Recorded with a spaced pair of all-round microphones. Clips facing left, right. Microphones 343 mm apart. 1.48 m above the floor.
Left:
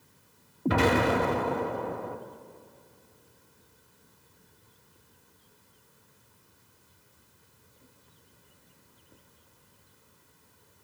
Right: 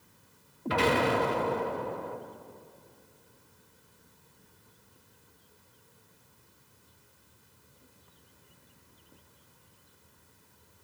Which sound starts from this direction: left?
An explosion, at 0.7 s.